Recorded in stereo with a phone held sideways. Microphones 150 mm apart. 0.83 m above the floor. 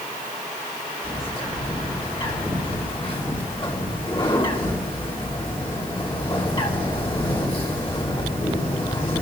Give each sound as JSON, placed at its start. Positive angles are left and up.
{"t": 1.0, "sound": "a bird", "side_deg": 40, "distance_m": 3.5}